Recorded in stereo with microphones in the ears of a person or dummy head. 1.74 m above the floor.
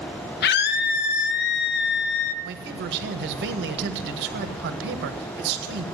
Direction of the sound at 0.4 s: 65° left (ahead or behind).